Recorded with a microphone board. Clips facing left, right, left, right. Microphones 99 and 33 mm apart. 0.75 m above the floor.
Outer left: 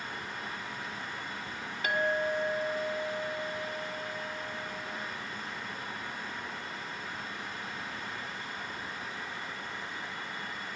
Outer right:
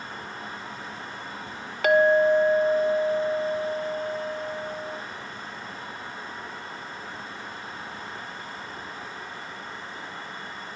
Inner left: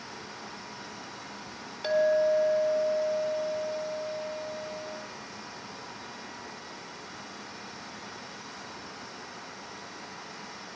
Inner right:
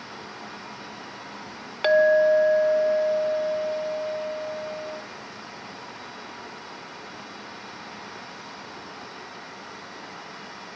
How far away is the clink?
About 0.9 m.